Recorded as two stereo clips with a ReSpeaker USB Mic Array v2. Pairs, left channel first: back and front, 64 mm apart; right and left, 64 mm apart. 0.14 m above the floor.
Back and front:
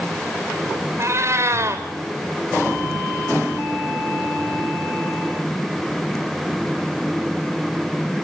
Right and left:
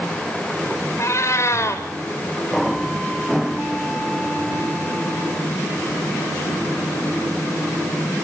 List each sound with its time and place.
1.0 s a cat meowing: 45° right, 3 m